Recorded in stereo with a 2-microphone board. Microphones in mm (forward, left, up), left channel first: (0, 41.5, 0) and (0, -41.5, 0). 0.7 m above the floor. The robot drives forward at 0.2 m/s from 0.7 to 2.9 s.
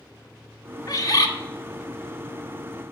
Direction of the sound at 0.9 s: 45° left (ahead or behind).